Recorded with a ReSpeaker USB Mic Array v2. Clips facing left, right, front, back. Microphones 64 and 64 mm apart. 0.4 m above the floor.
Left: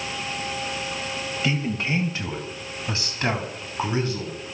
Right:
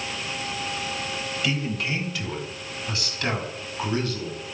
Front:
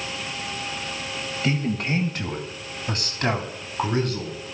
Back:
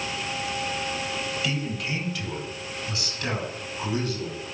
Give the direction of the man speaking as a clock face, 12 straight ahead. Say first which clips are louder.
Left 2 dB, front 4 dB; 11 o'clock.